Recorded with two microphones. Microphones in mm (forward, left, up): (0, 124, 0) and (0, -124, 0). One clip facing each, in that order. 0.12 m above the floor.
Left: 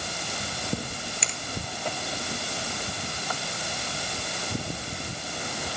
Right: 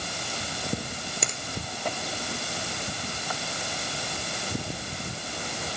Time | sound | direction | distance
1.2 | a finger snap | 50° right (ahead or behind) | 2.5 m